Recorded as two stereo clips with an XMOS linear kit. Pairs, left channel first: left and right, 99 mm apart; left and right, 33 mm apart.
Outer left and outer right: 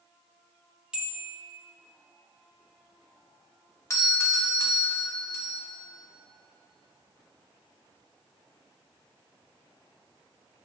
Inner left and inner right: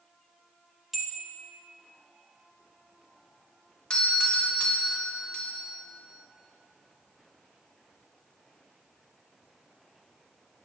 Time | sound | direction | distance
0.9 | a bell | 10° right (ahead or behind) | 0.7 m
3.9 | a doorbell | 30° left (ahead or behind) | 0.9 m